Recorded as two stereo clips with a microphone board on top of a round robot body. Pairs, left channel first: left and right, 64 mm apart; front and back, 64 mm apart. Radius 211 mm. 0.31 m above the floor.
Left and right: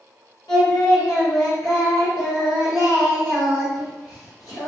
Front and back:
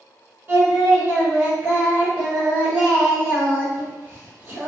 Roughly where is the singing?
Left.